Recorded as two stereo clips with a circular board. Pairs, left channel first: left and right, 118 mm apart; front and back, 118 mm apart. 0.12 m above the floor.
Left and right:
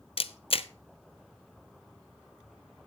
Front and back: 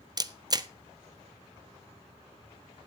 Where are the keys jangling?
No keys jangling in this recording.